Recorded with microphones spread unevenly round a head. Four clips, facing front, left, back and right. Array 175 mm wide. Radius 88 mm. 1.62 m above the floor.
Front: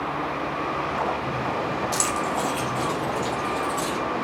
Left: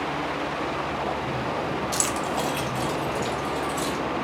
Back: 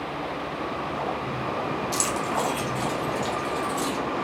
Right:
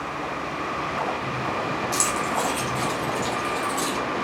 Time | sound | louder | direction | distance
1.9 | keys jangling | right 2 dB, front 1 dB | 40° left | 0.6 m